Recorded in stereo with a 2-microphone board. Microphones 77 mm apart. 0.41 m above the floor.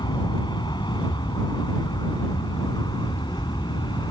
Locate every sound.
0.0 s an aircraft: 70° left (ahead or behind)